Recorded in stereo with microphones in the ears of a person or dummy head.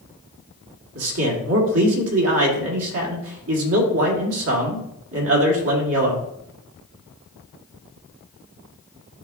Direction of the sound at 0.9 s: 70° right (ahead or behind).